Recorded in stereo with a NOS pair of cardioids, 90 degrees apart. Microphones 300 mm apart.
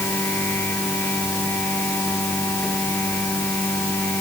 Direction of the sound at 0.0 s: 5° left.